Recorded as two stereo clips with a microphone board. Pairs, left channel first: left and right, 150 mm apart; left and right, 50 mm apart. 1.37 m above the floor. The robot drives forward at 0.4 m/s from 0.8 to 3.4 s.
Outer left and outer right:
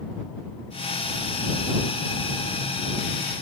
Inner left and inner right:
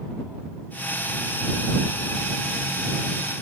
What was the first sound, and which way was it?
Only background noise.